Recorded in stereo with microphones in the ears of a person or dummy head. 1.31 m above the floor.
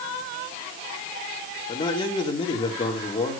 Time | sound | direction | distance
1.7 | a man speaking | 30° left (ahead or behind) | 3 m